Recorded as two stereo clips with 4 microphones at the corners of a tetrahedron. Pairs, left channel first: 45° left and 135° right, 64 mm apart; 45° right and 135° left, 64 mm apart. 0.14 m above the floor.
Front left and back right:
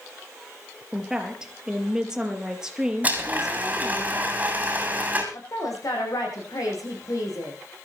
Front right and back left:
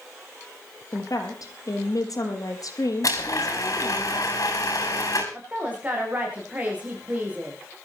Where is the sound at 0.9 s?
55° right, 4 m.